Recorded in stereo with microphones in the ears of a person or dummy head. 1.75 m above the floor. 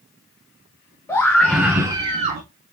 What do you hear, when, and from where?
1.1 s a scream: 15° left (ahead or behind), 1.8 m; by 2.4 s 45° right (ahead or behind), 1.2 m